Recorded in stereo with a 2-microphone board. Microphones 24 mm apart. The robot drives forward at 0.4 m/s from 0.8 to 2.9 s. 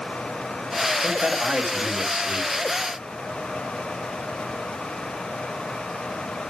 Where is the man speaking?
60° right (ahead or behind), 2.5 m.